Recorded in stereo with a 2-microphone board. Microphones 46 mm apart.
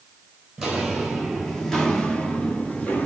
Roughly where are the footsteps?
Centre.